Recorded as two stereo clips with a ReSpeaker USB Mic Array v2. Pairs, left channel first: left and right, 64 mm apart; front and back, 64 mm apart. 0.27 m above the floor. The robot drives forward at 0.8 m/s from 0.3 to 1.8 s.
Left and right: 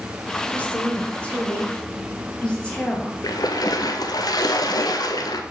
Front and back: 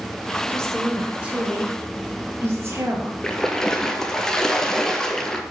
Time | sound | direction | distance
0.5 | a woman speaking | 50° left | 1.0 m
3.2 | a splash | 80° left | 0.8 m